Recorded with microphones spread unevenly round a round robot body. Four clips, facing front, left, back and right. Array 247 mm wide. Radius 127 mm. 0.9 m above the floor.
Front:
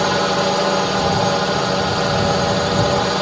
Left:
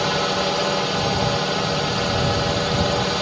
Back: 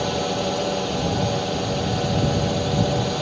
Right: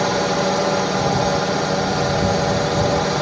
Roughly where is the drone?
Ahead right.